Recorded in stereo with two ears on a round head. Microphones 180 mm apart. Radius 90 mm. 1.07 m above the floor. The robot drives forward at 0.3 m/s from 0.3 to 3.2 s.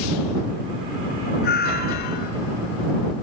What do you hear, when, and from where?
1.4 s a cat meowing: 55° left (ahead or behind)